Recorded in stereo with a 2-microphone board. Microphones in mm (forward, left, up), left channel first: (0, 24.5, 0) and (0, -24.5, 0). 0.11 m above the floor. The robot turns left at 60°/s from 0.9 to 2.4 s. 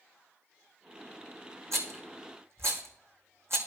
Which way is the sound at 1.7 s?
70° right (ahead or behind).